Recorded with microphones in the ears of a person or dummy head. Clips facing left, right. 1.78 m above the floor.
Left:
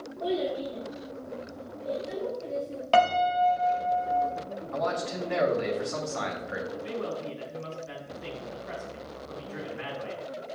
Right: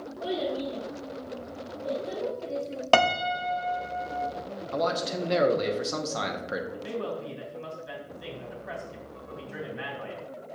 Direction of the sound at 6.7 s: 45° right (ahead or behind).